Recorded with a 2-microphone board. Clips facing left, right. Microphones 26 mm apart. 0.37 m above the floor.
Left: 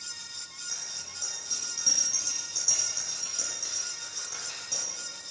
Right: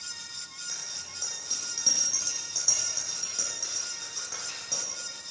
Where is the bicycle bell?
15° right (ahead or behind), 8.5 m.